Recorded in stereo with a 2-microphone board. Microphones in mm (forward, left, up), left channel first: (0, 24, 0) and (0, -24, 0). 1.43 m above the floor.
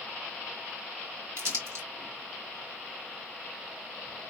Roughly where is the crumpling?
Right.